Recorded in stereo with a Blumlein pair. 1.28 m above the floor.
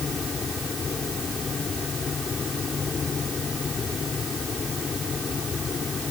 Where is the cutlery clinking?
No cutlery clinking in this recording.